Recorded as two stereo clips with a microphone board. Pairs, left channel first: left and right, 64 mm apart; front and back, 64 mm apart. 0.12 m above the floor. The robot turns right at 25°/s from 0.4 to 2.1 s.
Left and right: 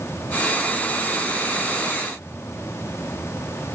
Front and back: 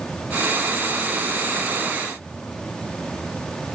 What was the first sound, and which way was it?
Only background noise.